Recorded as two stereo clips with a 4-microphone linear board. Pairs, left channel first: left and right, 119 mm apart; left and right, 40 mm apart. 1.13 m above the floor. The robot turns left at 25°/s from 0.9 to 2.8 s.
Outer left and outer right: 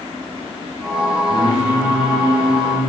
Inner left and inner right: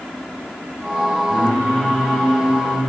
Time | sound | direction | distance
1.3 | singing | 60° left | 1.7 m